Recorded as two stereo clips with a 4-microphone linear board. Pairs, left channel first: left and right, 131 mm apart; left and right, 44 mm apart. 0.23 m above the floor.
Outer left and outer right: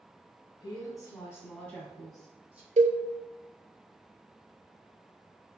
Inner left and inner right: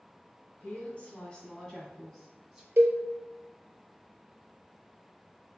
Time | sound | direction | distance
0.6 | a woman speaking | 35° left (ahead or behind) | 1.8 m
2.8 | a cowbell | 60° right (ahead or behind) | 0.6 m